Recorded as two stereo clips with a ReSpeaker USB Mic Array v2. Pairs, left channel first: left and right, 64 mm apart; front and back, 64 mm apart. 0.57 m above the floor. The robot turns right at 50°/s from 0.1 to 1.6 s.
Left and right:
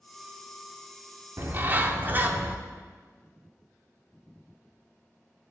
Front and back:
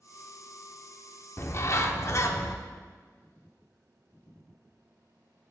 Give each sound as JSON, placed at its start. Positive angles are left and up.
{"t": 1.4, "sound": "a bird", "azimuth_deg": -45, "distance_m": 0.6}